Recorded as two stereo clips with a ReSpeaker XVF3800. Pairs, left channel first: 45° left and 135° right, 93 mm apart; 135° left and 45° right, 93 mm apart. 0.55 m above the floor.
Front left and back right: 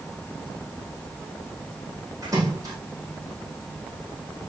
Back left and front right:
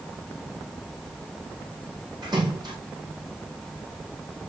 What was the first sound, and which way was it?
A splash, 85° right.